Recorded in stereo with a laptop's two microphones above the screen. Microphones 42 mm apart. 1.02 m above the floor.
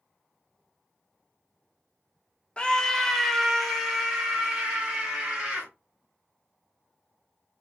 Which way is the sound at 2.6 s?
25° left (ahead or behind).